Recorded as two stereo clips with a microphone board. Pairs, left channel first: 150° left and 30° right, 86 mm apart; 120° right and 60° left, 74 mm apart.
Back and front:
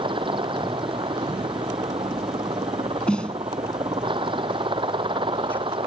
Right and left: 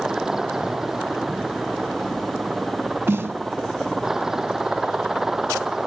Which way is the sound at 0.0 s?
20° right.